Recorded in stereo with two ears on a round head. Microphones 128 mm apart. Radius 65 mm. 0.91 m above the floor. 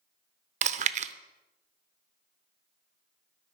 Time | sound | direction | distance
0.6 | chewing | 50° right (ahead or behind) | 0.7 m